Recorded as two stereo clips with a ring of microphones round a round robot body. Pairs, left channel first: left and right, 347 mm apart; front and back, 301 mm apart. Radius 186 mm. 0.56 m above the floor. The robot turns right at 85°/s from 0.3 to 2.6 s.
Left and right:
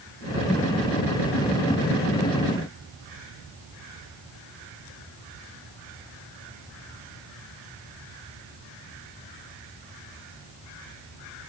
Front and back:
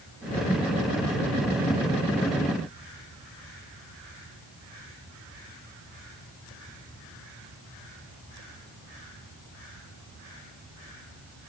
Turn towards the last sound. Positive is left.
No sound to turn to.